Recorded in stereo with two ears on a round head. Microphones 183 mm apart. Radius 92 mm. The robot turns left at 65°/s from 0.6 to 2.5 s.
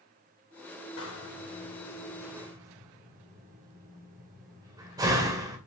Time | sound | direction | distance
1.0 | a door slam | 75° left (ahead or behind) | 2 m